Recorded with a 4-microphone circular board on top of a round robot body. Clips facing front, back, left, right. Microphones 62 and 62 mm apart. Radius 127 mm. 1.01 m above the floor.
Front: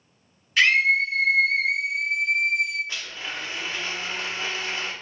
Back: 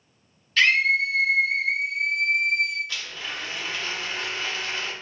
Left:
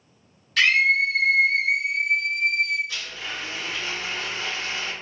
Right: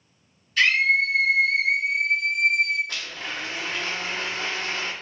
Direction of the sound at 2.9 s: 65° right.